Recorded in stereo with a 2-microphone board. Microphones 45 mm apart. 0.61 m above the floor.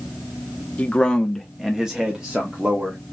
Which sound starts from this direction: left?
A man speaking, at 0.8 s.